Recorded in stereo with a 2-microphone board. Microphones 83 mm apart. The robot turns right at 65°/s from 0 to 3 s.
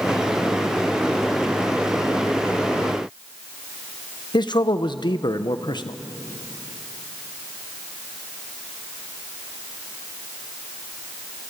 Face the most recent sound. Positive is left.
turn(degrees=60)  # may be behind; listen again after turning